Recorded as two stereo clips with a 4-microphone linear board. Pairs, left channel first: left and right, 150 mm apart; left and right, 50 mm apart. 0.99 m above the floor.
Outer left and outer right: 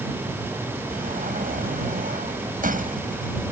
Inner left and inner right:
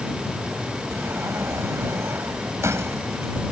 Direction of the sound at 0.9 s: 70° right (ahead or behind).